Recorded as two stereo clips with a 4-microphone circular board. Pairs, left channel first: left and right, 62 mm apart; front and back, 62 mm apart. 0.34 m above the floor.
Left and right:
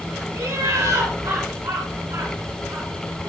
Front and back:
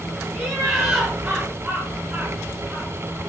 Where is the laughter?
100° right, 4.5 m; by 2.9 s 125° right, 5 m.